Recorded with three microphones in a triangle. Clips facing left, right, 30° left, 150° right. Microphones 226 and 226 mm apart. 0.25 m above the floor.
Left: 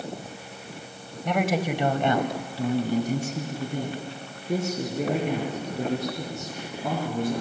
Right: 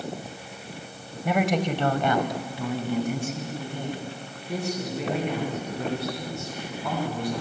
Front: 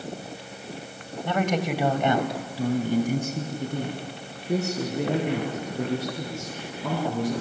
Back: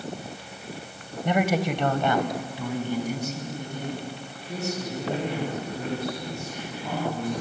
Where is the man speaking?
160° right, 1.6 m; by 7.4 s 45° left, 8.5 m.